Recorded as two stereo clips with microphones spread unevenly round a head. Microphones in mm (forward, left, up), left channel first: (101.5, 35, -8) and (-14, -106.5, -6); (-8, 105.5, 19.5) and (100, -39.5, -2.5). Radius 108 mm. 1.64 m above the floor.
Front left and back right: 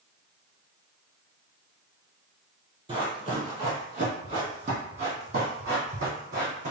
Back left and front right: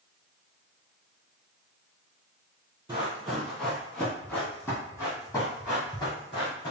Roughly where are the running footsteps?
Behind right.